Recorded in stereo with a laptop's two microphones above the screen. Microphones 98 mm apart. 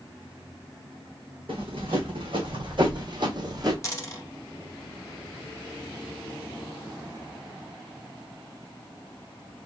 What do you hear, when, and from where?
1.5 s running footsteps: 65° right (ahead or behind), 2.5 m; by 3.7 s 45° right (ahead or behind), 1.7 m
3.8 s a dropped coin: 30° left (ahead or behind), 1.2 m